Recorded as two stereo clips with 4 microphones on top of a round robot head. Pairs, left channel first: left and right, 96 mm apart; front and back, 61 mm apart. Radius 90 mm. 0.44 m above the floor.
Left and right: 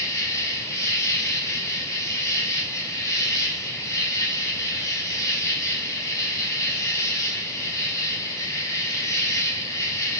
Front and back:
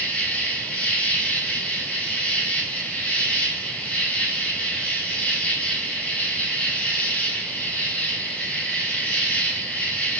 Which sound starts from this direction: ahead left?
An insect, at 0.0 s.